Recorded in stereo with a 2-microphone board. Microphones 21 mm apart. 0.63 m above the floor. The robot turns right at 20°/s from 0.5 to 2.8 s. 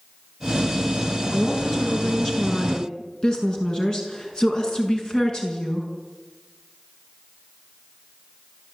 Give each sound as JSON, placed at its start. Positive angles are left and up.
{"t": 1.3, "sound": "a woman speaking", "side_deg": 5, "distance_m": 6.5}